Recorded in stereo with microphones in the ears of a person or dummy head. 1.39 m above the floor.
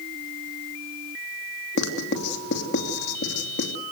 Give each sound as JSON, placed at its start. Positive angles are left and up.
{"t": 1.8, "sound": "writing", "side_deg": 60, "distance_m": 3.0}